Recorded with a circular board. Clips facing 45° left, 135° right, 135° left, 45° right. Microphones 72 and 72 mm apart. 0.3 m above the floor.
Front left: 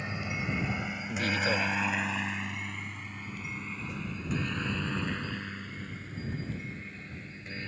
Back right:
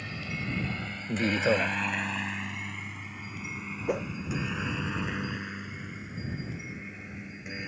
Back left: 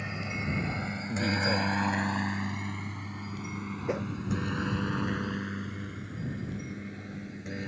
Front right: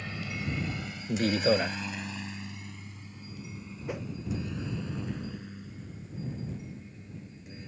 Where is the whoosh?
155° right.